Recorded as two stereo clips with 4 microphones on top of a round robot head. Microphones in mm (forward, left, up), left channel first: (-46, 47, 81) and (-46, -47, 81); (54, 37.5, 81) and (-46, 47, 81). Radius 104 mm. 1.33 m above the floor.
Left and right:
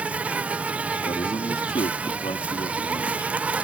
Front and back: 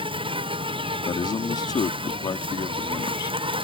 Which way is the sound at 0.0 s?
165° right.